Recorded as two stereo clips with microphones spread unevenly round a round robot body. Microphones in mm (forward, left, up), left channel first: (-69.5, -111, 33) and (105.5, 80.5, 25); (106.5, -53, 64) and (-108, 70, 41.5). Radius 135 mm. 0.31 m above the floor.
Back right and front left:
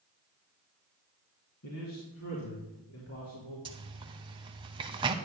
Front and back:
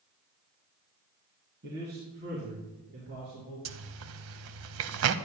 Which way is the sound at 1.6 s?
160° right.